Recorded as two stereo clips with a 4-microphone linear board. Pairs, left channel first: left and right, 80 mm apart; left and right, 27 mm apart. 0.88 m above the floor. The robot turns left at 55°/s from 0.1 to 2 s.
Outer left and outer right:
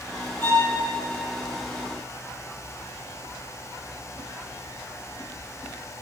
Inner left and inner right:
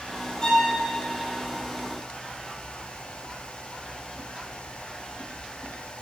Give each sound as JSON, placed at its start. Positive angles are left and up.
{"t": 0.4, "sound": "a violin", "side_deg": 30, "distance_m": 1.4}